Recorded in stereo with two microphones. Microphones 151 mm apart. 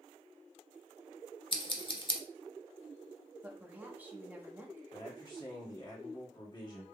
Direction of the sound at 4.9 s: 30° left (ahead or behind).